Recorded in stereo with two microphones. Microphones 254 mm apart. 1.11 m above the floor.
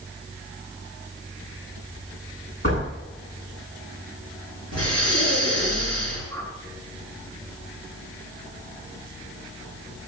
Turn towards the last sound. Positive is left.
turn(degrees=15)  # may be behind; listen again after turning